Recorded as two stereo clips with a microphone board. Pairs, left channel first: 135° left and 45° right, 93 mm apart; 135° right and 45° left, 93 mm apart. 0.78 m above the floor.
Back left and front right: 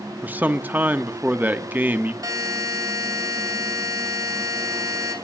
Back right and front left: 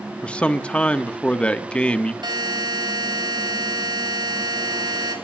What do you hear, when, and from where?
0.2 s a man speaking: 80° right, 1.0 m
2.2 s a buzzer: 5° left, 3.5 m